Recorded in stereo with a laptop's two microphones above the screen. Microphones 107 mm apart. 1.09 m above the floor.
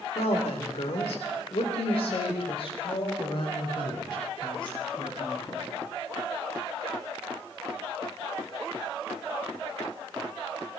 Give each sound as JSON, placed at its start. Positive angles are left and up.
{"t": 0.1, "sound": "a woman speaking", "side_deg": 85, "distance_m": 3.0}